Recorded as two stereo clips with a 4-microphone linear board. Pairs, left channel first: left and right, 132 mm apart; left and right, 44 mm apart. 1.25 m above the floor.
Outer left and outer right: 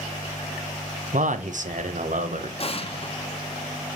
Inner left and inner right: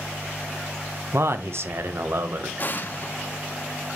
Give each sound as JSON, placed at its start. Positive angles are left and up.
{"t": 1.1, "sound": "a man speaking", "side_deg": -65, "distance_m": 0.9}
{"t": 2.6, "sound": "an explosion", "side_deg": 45, "distance_m": 0.9}